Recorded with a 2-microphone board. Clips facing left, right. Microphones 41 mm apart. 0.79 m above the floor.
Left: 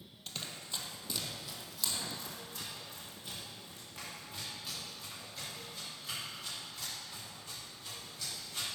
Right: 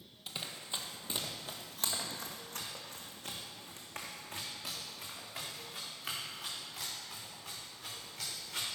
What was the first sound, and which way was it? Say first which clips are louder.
Running footsteps: right 1 dB; 10° right (ahead or behind).